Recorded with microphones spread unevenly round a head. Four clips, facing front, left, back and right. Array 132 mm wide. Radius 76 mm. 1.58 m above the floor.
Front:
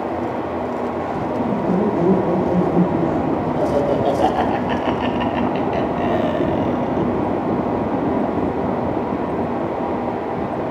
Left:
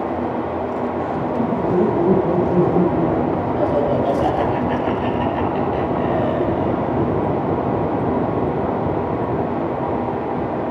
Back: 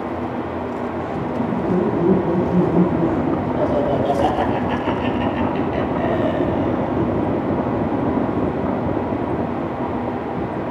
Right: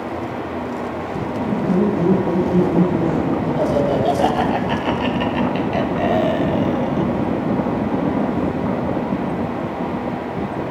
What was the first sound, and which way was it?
Laughter, 25° left.